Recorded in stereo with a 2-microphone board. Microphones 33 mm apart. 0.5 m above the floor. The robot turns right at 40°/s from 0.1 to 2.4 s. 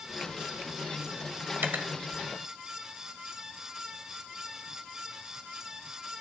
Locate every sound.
1.6 s cutlery clinking: 70° right (ahead or behind), 1.4 m; by 1.9 s 75° right (ahead or behind), 1.4 m